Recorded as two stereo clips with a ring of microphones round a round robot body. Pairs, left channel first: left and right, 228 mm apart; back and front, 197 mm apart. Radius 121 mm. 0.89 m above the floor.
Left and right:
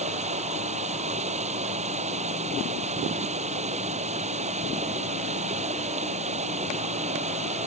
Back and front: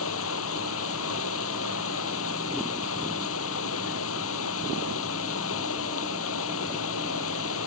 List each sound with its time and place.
0.0 s running water: 150° right